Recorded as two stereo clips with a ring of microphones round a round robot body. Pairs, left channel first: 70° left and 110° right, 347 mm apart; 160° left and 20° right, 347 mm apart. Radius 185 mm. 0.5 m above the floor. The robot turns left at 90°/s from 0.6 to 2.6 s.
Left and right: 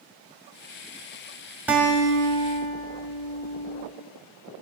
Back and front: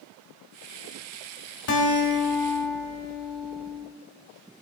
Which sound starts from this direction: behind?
A guitar, at 1.7 s.